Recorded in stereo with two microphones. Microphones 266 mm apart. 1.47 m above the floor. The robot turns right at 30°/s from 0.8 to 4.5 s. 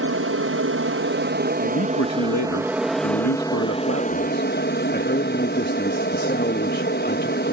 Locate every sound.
0.0 s an aircraft: 65° right; by 7.5 s 45° left
1.6 s a man speaking: 55° left; by 7.5 s 140° left